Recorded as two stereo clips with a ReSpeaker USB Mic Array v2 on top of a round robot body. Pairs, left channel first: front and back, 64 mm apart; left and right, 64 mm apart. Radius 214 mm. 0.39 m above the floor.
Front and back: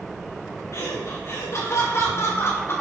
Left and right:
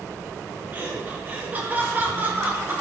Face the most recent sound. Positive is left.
turn(degrees=-35)